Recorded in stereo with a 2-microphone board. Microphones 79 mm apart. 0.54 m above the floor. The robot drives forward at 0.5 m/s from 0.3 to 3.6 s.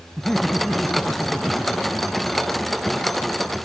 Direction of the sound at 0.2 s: 5° left (ahead or behind).